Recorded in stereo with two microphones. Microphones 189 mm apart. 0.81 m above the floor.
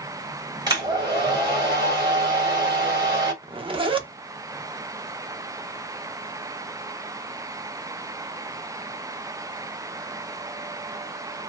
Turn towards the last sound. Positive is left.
turn(degrees=-25)  # may be behind; listen again after turning